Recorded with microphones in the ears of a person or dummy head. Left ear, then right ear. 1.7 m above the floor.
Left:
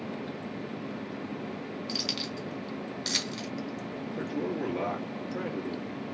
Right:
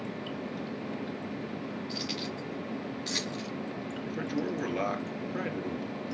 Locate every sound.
1.9 s keys jangling: 65° left (ahead or behind), 2.5 m
4.1 s a man speaking: 35° right (ahead or behind), 2.5 m